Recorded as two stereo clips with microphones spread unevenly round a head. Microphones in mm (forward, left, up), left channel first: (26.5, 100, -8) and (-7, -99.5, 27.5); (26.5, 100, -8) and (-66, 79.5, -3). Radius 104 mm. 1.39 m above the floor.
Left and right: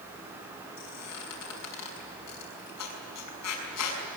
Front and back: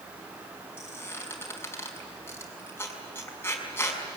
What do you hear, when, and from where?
0.8 s a squeak: 80° left, 6 m